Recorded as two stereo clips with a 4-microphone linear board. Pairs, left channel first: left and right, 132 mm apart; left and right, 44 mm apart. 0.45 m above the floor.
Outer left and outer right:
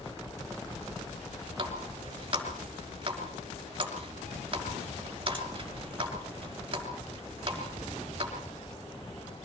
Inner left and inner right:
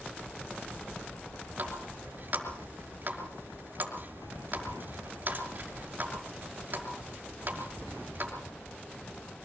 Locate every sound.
1.6 s a running tap: 40° right (ahead or behind), 5 m